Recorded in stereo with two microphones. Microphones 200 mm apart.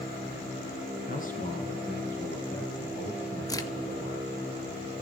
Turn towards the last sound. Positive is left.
turn(degrees=20)  # may be behind; listen again after turning